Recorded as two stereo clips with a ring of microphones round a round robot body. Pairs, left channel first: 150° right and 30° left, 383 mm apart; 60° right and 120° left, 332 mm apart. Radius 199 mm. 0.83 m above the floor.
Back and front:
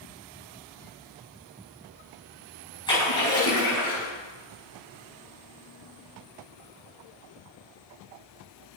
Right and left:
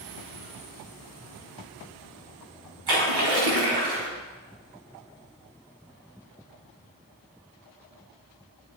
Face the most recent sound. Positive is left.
turn(degrees=130)